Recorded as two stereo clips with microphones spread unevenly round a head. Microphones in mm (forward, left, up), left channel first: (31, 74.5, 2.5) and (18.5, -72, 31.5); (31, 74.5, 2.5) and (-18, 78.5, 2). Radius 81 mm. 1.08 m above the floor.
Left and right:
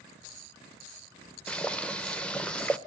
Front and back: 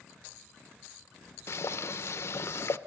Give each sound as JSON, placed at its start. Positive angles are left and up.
{"t": 1.5, "sound": "boiling", "azimuth_deg": 10, "distance_m": 1.0}